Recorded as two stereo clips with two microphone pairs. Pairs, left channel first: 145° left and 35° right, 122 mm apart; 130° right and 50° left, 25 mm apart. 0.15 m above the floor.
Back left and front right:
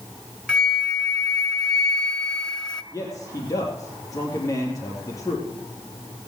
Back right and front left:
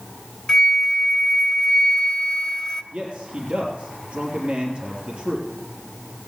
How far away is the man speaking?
About 4 m.